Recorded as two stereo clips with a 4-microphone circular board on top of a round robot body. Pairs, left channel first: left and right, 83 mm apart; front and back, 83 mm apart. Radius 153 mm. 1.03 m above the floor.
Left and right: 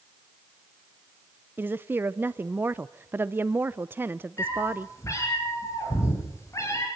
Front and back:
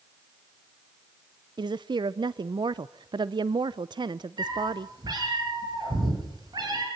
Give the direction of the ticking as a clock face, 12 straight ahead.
No ticking in this recording.